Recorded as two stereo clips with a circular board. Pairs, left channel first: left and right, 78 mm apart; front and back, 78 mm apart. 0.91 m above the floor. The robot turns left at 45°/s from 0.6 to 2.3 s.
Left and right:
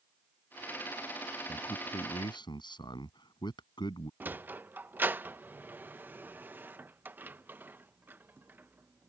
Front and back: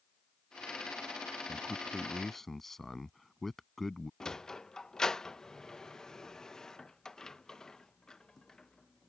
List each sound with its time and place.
1.5 s a man speaking: 125° left; by 4.1 s 90° left
4.2 s a sliding door: 70° right